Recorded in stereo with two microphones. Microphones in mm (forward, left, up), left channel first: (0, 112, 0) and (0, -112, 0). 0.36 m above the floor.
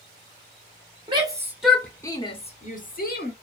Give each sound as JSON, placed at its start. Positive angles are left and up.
{"t": 1.1, "sound": "a shout", "side_deg": -25, "distance_m": 0.9}